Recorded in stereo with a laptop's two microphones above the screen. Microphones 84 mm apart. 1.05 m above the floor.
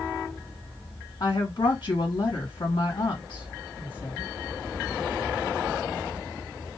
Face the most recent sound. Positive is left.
turn(degrees=70)  # may be behind; listen again after turning